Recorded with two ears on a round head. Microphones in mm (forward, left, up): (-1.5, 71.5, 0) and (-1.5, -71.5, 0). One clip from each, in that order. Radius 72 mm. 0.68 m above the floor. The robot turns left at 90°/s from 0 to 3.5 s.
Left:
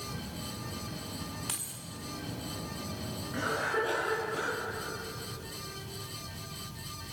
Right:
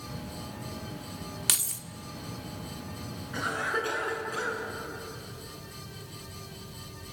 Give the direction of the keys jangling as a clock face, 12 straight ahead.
3 o'clock.